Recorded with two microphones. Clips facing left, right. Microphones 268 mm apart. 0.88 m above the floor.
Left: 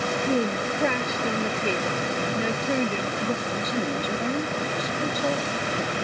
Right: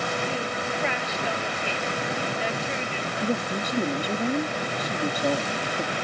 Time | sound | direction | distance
0.3 | a woman speaking | 50° left (ahead or behind) | ?
3.2 | a woman speaking | 10° right (ahead or behind) | ?